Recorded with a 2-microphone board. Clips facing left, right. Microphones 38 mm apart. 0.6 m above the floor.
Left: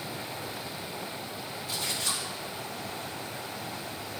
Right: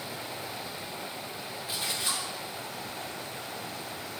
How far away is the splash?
About 1.8 m.